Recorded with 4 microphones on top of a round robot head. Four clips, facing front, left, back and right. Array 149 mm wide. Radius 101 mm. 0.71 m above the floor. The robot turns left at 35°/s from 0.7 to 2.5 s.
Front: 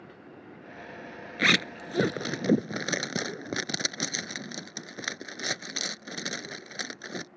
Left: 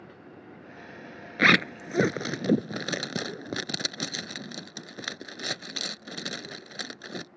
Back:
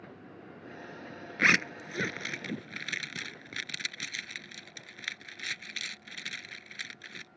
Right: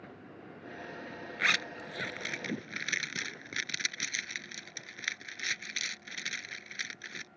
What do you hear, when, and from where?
1.4 s a zipper: 80° left; by 7.3 s 40° left